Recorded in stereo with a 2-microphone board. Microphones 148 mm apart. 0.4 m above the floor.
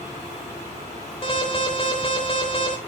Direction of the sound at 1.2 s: 40° left (ahead or behind).